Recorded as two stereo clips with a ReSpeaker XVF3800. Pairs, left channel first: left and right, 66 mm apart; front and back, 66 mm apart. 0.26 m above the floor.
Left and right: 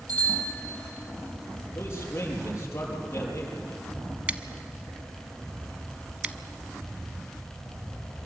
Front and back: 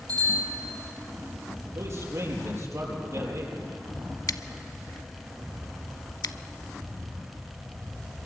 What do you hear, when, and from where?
0.1 s a bicycle bell: 160° left, 8.5 m
1.8 s a man speaking: 140° left, 6 m
4.3 s scissors: 20° right, 0.7 m